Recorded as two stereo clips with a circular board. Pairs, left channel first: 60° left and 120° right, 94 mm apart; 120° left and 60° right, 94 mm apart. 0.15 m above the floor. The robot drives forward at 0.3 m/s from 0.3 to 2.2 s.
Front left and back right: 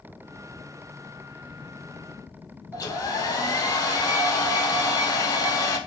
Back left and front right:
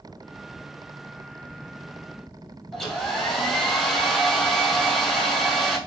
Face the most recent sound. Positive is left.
turn(degrees=35)